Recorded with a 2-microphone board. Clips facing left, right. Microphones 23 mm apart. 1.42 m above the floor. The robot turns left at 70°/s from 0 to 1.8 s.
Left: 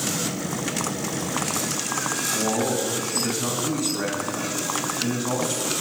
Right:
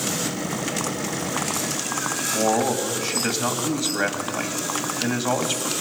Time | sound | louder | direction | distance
2.3 | a man speaking | right 4 dB | 45° right (ahead or behind) | 2.5 m